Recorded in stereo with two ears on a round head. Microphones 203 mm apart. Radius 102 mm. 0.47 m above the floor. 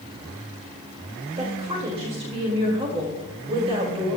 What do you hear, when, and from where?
1.4 s a woman speaking: 25° right (ahead or behind), 1.6 m